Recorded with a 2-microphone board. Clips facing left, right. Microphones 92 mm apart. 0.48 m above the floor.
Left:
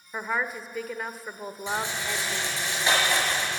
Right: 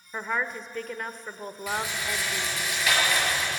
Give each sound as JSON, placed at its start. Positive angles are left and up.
{"t": 0.1, "sound": "a woman speaking", "side_deg": 5, "distance_m": 1.1}
{"t": 1.7, "sound": "a rattle", "side_deg": 30, "distance_m": 6.5}